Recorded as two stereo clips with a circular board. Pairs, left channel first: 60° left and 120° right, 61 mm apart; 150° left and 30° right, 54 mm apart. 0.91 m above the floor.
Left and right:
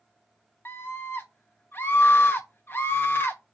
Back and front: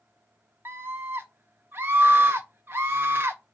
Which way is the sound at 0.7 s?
10° left.